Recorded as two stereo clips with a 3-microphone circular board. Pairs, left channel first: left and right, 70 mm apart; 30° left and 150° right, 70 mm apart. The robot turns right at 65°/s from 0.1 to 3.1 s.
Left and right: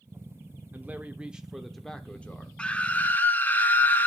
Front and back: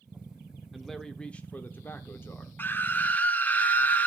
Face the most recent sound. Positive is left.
turn(degrees=60)